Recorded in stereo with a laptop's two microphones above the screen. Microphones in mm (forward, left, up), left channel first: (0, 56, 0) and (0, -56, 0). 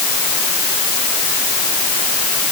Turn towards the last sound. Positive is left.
No sound to turn to.